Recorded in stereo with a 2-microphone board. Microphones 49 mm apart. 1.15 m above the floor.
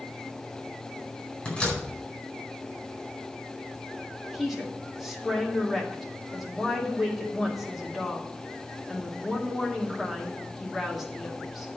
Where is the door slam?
20° left (ahead or behind), 4.5 m.